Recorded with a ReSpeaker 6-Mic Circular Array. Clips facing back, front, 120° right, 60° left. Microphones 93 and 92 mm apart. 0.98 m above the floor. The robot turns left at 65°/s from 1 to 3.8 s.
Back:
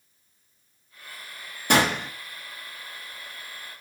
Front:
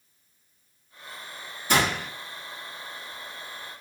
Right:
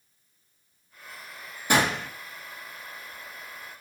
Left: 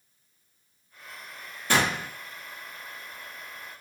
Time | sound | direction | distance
1.7 | a gunshot | 170° left | 2 m